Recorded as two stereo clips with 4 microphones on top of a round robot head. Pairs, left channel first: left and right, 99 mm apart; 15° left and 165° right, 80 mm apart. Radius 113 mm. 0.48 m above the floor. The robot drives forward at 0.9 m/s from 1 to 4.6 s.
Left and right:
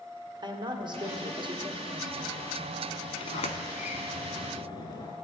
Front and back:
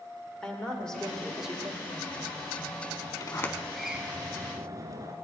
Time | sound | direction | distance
0.4 | a woman speaking | 65° right | 1.6 m
3.2 | a sliding door | 55° left | 0.8 m